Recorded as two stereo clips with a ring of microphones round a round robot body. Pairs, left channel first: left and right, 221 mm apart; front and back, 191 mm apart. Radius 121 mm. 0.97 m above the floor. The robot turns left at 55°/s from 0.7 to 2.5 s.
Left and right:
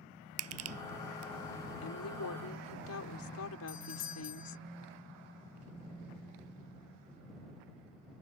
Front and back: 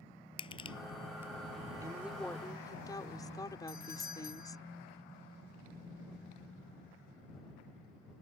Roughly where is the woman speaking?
Left.